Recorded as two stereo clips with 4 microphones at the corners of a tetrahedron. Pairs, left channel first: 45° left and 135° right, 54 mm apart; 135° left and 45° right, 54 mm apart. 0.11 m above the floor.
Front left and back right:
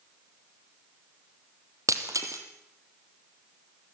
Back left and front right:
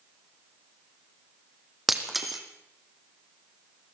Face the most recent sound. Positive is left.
turn(degrees=-135)